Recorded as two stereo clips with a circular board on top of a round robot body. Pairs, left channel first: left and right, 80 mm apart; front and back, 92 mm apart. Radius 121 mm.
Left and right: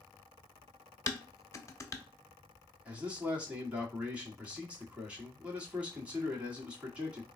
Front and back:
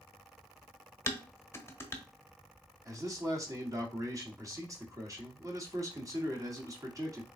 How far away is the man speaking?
About 1.6 m.